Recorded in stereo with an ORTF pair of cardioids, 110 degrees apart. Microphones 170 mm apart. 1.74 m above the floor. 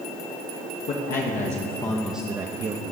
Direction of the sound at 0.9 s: 65° left.